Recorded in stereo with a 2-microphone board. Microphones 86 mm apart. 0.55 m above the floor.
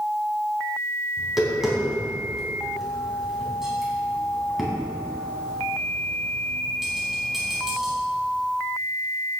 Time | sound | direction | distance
1.2 | tapping | 5° right (ahead or behind) | 4 m